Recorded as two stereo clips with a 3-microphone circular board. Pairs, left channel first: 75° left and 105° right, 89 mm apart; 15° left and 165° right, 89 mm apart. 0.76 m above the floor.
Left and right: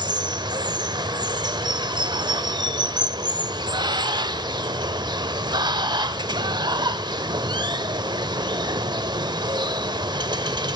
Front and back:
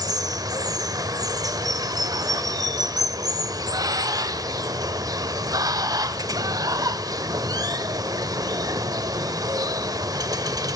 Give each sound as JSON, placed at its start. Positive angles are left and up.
{"t": 0.0, "sound": "running water", "azimuth_deg": -130, "distance_m": 0.8}